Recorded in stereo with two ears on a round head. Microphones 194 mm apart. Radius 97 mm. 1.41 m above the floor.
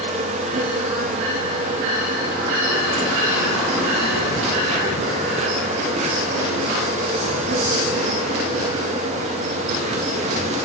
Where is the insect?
30° right (ahead or behind), 2.0 m.